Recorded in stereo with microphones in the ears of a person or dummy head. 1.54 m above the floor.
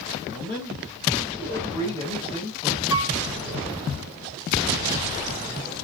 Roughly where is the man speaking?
Centre.